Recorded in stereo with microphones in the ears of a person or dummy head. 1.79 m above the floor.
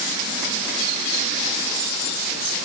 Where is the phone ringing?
I don't hear a phone ringing.